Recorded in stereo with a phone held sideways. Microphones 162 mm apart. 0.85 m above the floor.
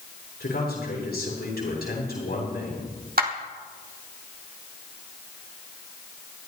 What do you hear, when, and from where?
0.4 s a man speaking: 85° left, 8 m
3.2 s a clap: 70° right (ahead or behind), 1.8 m